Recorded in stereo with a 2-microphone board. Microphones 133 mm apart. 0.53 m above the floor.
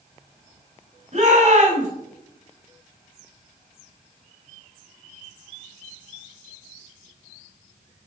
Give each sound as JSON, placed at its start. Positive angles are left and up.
{"t": 1.1, "sound": "a shout", "side_deg": -55, "distance_m": 4.5}